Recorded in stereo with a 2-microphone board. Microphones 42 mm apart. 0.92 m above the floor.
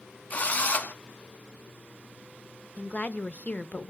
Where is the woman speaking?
35° left (ahead or behind), 0.7 m.